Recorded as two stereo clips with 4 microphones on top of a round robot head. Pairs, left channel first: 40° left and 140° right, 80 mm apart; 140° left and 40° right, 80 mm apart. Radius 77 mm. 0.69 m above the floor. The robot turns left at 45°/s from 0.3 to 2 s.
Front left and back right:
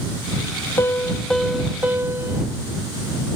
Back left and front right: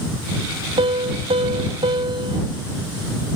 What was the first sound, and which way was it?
A piano, 20° right.